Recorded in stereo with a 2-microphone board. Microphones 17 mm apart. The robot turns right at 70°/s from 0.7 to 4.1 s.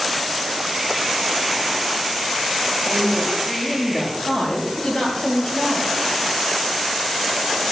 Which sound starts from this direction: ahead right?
A woman speaking, at 2.9 s.